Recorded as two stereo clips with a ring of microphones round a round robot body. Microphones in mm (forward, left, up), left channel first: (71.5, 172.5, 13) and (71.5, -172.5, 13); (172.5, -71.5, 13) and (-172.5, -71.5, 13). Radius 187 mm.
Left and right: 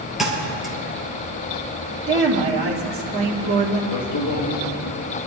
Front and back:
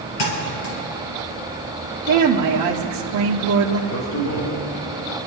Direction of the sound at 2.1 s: 145° right.